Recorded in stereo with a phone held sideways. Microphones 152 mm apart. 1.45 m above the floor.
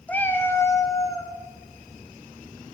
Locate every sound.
0.1 s a cat meowing: 10° left (ahead or behind), 0.7 m; by 1.3 s 25° left (ahead or behind), 1.2 m